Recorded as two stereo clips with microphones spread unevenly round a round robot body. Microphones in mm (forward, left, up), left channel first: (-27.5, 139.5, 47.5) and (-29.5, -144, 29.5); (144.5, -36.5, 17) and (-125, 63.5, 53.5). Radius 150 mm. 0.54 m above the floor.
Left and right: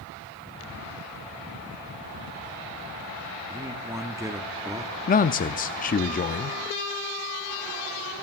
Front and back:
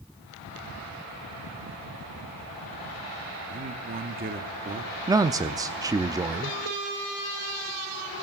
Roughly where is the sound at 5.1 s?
Left.